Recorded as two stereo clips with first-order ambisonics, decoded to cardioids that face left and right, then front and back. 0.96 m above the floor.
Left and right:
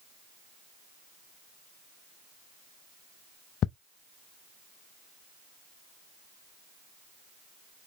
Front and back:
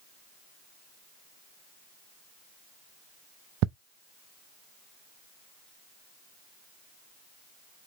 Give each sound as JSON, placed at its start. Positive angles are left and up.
{"t": 3.6, "sound": "ticking", "azimuth_deg": 145, "distance_m": 0.5}